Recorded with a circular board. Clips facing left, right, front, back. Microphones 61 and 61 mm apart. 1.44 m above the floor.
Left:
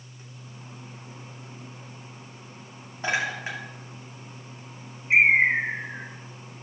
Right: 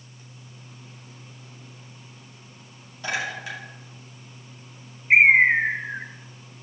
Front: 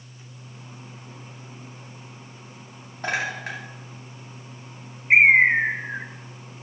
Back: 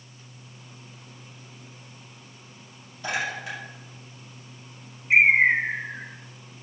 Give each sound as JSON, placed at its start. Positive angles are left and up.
{"t": 3.0, "sound": "a clink", "azimuth_deg": 30, "distance_m": 2.5}
{"t": 5.1, "sound": "a bird", "azimuth_deg": -45, "distance_m": 0.8}